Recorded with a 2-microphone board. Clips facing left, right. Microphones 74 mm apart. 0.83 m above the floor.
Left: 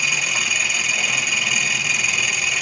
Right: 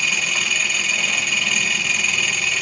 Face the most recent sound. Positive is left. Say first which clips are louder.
# even
turn(degrees=10)  # may be behind; listen again after turning